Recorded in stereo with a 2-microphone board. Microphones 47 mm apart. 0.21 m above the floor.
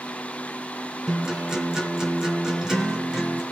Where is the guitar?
10° right (ahead or behind), 4 m.